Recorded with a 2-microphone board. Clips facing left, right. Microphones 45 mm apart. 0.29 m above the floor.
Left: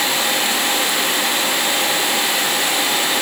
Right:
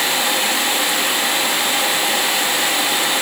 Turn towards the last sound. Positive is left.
No sound to turn to.